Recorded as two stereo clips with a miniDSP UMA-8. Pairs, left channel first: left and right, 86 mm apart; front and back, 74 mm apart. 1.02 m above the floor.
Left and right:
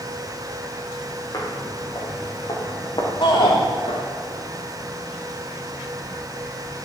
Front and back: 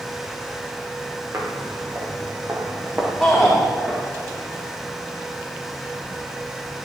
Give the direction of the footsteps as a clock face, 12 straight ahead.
8 o'clock.